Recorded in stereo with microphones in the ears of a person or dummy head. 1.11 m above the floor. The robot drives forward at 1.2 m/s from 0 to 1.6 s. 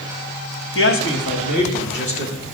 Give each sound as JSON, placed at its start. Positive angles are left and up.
{"t": 0.8, "sound": "a man speaking", "side_deg": 65, "distance_m": 1.7}